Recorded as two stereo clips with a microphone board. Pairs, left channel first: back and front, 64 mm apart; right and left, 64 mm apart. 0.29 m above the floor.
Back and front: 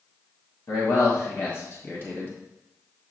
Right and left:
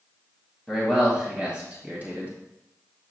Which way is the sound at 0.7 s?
175° left.